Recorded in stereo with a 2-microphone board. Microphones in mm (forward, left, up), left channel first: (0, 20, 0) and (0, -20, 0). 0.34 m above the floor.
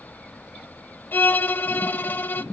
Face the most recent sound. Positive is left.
turn(degrees=60)  # may be behind; listen again after turning